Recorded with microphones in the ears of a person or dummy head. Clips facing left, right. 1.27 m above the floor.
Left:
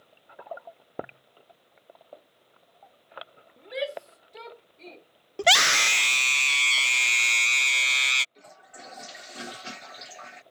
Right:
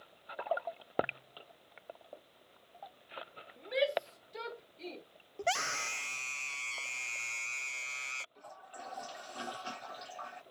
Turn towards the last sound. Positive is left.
turn(degrees=25)  # may be behind; listen again after turning